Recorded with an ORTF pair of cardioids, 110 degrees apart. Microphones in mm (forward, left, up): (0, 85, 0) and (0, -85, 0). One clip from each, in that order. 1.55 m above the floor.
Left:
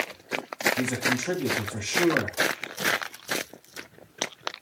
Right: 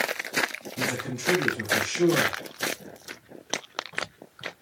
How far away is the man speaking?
About 8 m.